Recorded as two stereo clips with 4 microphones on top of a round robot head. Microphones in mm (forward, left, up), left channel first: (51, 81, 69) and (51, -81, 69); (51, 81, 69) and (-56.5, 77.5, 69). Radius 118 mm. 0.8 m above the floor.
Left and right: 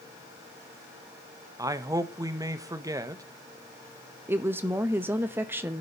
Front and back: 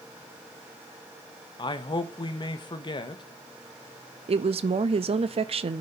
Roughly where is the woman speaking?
Behind.